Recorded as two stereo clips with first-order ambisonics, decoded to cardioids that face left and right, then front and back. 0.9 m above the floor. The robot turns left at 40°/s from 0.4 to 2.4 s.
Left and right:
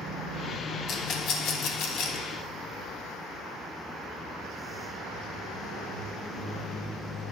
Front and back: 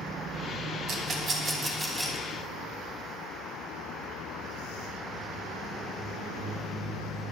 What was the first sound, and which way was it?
A rattle, 135° left.